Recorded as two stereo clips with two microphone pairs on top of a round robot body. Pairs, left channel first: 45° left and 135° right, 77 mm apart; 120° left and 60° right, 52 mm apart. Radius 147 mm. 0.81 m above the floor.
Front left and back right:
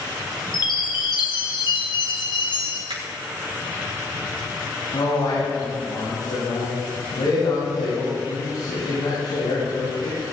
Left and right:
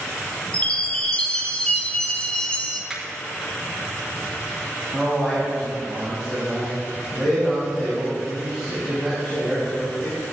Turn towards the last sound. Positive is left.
turn(degrees=25)